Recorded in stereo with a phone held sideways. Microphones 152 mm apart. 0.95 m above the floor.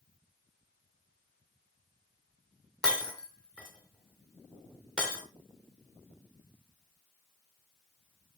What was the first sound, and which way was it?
Breaking glass, 5° left (ahead or behind).